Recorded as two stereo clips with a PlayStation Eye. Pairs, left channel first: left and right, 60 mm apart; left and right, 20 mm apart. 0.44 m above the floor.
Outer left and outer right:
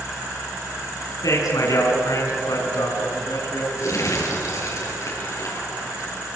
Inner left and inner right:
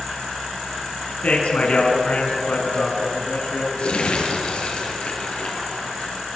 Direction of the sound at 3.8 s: 60° left (ahead or behind).